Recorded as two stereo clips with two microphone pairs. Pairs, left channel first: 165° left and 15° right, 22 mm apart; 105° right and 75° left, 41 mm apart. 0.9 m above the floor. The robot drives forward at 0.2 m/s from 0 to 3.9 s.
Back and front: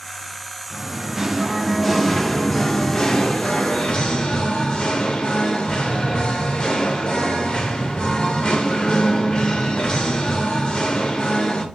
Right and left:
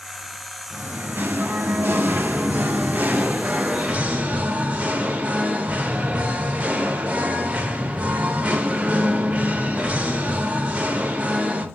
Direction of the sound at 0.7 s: 55° left.